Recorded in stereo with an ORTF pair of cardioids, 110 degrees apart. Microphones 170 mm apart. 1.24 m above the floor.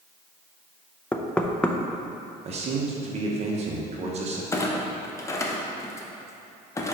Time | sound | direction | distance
1.1 | knocking | 5° left | 0.6 m
2.5 | a man speaking | 45° right | 1.1 m
4.5 | a clunk | 15° left | 0.8 m